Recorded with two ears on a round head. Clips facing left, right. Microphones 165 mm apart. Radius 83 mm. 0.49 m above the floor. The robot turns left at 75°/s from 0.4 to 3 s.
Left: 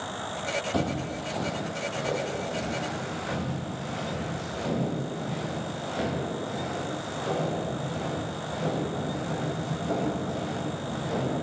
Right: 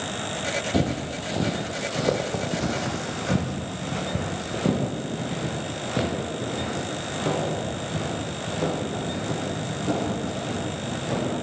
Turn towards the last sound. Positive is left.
turn(degrees=-75)  # may be behind; listen again after turning